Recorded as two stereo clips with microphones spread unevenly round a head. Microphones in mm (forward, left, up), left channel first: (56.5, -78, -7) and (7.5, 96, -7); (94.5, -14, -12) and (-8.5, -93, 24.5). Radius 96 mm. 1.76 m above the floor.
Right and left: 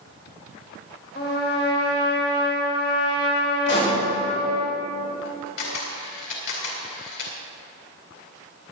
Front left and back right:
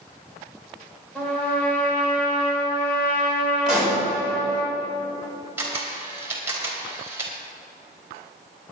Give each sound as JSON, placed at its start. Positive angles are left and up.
{"t": 1.1, "sound": "a trumpet", "azimuth_deg": -50, "distance_m": 4.5}
{"t": 3.7, "sound": "a pop", "azimuth_deg": -60, "distance_m": 5.0}
{"t": 5.6, "sound": "a camera shutter", "azimuth_deg": -80, "distance_m": 3.0}